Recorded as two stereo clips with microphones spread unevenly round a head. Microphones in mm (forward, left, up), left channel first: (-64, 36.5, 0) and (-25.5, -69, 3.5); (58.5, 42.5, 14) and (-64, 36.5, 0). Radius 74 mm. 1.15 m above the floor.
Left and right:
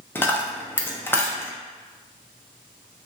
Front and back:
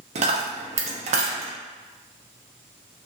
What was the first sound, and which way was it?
A dropped coin, 175° left.